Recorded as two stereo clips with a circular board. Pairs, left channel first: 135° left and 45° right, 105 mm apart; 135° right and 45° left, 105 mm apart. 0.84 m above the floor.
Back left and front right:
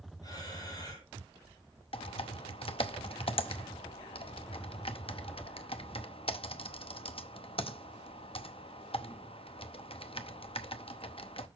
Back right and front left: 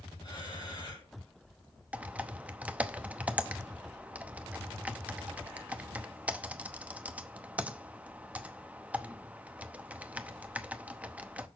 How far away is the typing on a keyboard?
About 0.7 m.